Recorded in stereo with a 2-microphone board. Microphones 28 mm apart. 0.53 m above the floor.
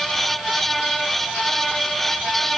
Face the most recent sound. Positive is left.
No sound to turn to.